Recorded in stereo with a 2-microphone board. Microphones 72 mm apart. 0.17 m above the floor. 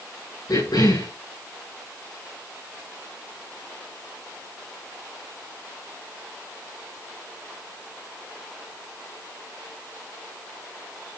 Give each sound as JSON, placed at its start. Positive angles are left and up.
{"t": 0.5, "sound": "a cough", "side_deg": 80, "distance_m": 6.0}